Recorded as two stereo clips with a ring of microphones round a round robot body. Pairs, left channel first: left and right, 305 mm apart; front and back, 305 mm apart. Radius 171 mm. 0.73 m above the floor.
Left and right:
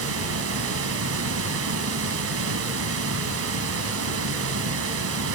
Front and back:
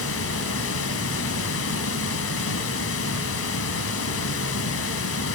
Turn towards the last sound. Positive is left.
turn(degrees=-45)